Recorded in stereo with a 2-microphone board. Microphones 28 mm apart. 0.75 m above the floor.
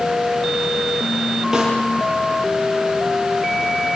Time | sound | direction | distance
1.5 | a snare drum | 20° right (ahead or behind) | 10 m